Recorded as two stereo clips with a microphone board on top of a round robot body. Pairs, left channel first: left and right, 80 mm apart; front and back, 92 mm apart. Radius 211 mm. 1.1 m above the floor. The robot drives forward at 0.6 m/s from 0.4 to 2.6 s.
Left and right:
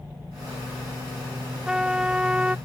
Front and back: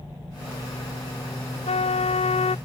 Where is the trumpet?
5° right; by 2.6 s 10° right.